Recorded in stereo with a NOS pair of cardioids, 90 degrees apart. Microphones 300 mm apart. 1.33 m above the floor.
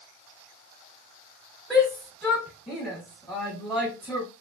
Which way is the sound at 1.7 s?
Straight ahead.